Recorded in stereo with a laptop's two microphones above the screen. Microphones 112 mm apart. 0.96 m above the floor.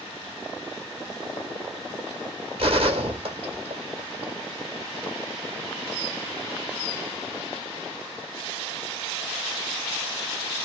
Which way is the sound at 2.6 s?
60° right (ahead or behind).